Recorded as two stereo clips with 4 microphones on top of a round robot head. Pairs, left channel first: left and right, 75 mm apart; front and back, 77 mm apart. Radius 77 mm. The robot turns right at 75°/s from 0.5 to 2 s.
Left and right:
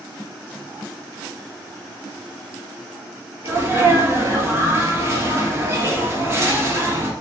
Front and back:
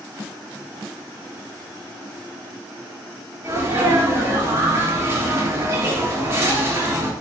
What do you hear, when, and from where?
3.4 s a sneeze: 135° right, 1.7 m